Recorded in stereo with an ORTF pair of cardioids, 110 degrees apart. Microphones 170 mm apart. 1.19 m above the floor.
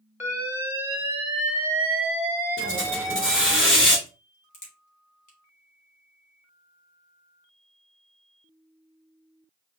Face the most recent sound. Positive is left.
turn(degrees=45)